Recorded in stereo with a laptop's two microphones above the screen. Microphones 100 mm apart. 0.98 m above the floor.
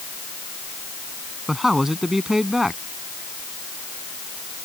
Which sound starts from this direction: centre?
A man speaking, at 1.5 s.